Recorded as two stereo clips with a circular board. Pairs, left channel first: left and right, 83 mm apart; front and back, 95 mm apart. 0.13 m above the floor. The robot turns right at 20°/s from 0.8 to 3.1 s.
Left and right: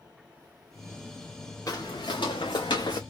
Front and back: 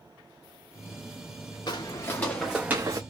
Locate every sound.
1.7 s footsteps: 45° left, 1.0 m; by 3.0 s 130° left, 0.7 m